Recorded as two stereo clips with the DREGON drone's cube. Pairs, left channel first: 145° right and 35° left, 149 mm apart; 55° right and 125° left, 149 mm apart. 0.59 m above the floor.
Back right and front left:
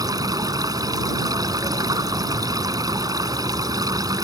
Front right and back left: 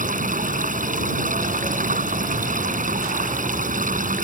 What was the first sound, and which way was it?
Running water, 100° left.